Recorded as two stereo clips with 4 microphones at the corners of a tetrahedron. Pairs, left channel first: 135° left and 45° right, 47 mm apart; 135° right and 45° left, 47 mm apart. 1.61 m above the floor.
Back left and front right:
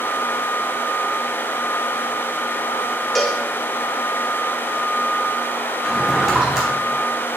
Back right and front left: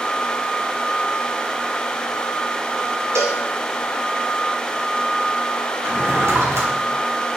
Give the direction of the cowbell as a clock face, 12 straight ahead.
10 o'clock.